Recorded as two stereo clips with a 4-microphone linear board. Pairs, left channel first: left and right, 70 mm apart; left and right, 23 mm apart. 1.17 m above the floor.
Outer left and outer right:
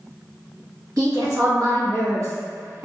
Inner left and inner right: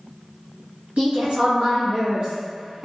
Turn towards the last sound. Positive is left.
turn(degrees=-40)  # may be behind; listen again after turning